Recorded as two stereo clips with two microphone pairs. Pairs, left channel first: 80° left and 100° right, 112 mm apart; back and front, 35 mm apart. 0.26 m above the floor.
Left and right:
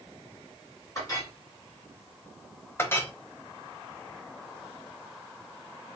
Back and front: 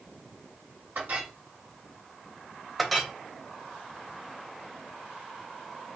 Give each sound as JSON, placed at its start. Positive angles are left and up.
{"t": 0.9, "sound": "a clink", "azimuth_deg": 25, "distance_m": 2.0}
{"t": 2.8, "sound": "a clink", "azimuth_deg": 90, "distance_m": 0.6}